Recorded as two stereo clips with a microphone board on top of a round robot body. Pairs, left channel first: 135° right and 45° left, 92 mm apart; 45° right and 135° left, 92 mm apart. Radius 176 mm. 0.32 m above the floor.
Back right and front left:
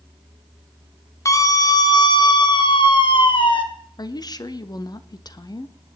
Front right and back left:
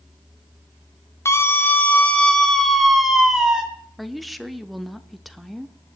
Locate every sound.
1.2 s a scream: 95° right, 1.8 m; by 3.6 s 145° right, 2.5 m
4.0 s a woman speaking: 135° right, 1.1 m